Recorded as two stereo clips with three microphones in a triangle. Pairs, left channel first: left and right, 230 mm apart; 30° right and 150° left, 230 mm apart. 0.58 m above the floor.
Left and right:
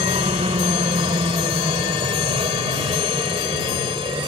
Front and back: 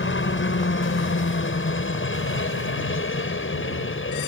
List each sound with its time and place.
0.0 s a helicopter: 30° right; by 4.3 s 25° right